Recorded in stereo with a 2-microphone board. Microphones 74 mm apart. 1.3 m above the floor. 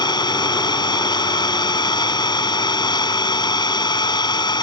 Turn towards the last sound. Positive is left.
turn(degrees=80)